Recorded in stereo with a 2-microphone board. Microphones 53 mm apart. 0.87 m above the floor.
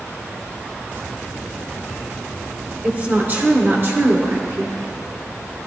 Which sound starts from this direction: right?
A woman speaking, at 2.8 s.